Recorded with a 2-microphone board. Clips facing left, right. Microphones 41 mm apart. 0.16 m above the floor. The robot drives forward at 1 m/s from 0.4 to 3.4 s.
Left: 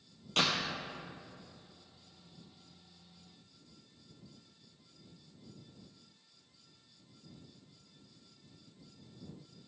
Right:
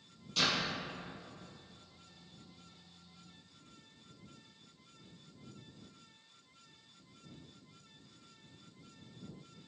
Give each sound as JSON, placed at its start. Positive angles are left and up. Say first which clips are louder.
{"t": 0.4, "sound": "a door slam", "louder": "left 1 dB", "side_deg": 60, "distance_m": 3.0}